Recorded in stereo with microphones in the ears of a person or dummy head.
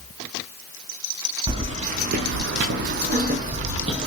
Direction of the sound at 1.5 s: 25° right (ahead or behind).